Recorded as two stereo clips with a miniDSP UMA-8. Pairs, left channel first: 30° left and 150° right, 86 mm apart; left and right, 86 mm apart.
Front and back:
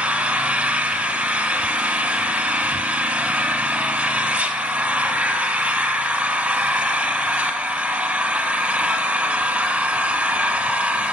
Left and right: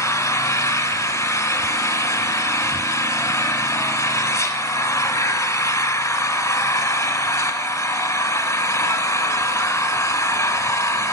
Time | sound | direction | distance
0.0 | an engine running | 140° left | 0.9 m